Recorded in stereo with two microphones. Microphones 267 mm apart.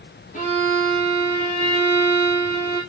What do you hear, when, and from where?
0.3 s a violin: 30° left (ahead or behind), 6 m